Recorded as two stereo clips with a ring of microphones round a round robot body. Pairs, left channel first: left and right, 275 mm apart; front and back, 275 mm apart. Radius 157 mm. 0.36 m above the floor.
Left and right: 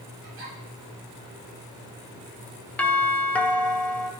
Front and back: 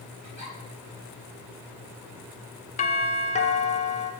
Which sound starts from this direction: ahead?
A doorbell, at 2.8 s.